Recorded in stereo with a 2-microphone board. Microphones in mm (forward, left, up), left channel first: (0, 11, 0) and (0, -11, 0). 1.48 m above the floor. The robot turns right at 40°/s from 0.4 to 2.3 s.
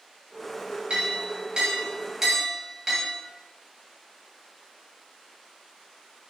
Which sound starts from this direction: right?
A clink, at 0.9 s.